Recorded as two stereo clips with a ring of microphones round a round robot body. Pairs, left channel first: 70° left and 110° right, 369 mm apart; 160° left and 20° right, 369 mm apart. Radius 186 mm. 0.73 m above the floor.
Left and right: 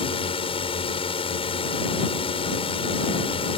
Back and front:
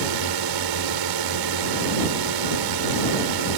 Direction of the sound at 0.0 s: 5° right.